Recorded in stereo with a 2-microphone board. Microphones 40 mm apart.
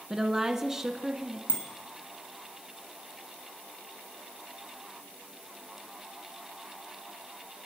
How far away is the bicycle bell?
About 4 m.